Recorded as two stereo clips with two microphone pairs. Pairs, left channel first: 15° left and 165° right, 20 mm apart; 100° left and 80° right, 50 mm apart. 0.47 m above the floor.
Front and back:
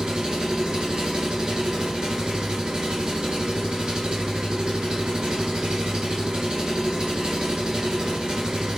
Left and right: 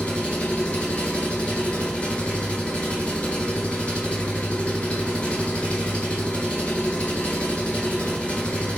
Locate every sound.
0.0 s an engine running: 165° left, 0.8 m